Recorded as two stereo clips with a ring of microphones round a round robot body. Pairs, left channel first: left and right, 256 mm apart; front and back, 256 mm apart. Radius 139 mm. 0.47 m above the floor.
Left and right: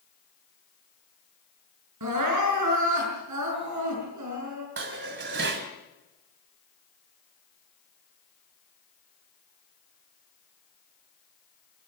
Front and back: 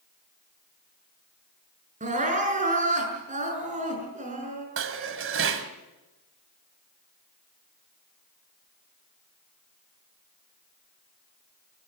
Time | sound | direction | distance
2.0 | crying | 120° right | 6.5 m
4.8 | dishes clattering | 140° right | 2.0 m